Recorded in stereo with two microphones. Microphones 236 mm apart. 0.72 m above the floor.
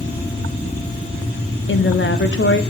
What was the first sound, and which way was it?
A woman speaking, 55° left (ahead or behind).